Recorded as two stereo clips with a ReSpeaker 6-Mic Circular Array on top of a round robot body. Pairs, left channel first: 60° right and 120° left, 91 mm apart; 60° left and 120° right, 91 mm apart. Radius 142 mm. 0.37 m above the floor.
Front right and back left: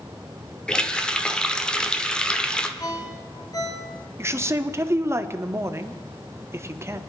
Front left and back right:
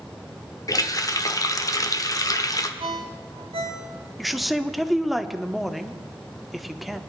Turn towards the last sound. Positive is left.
turn(degrees=150)